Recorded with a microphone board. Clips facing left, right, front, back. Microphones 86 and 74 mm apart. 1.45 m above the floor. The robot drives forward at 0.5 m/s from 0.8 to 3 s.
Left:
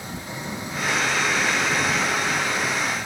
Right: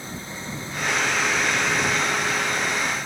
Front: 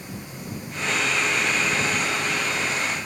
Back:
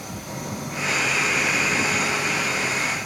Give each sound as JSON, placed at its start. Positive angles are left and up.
{"t": 0.0, "sound": "an engine running", "azimuth_deg": 165}